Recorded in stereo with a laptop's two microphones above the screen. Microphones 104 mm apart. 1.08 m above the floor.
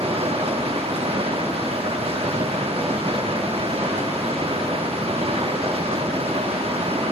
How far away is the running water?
About 1.0 m.